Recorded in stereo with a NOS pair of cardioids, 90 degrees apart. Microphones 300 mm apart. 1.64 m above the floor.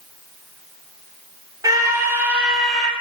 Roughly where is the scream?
Ahead.